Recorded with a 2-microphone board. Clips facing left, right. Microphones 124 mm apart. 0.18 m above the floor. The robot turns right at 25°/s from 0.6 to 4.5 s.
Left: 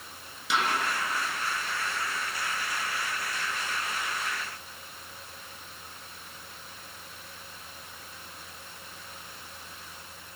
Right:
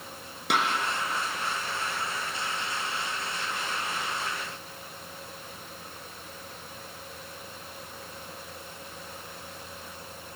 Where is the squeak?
No squeak in this recording.